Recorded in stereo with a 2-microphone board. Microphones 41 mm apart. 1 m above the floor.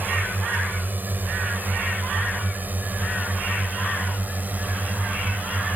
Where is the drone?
45° right (ahead or behind); by 5.8 s 40° right (ahead or behind).